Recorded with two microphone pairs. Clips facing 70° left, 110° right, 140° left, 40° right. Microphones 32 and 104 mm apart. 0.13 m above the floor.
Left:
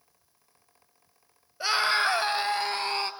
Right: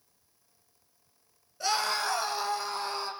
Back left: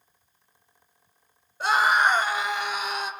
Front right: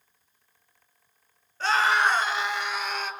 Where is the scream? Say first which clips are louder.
Left 5 dB, back left 2 dB; 70° left, 1.6 m; by 3.1 s 65° left, 3 m.